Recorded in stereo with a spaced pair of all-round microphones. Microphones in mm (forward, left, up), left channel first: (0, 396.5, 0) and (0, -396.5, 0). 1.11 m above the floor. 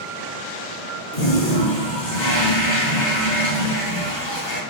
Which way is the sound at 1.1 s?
65° left (ahead or behind).